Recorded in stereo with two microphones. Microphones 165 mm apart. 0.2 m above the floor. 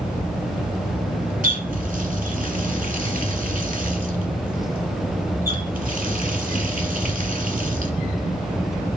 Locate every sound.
1.4 s a running tap: 55° right (ahead or behind), 1.6 m